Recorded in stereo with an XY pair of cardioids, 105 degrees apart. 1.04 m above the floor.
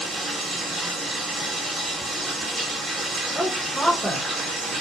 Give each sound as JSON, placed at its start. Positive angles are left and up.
{"t": 0.0, "sound": "running water", "azimuth_deg": -30, "distance_m": 1.3}
{"t": 3.4, "sound": "a woman speaking", "azimuth_deg": -10, "distance_m": 1.0}